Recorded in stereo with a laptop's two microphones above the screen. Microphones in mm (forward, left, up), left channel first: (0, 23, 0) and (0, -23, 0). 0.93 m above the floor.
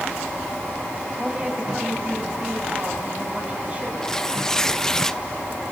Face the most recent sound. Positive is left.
turn(degrees=15)  # may be behind; listen again after turning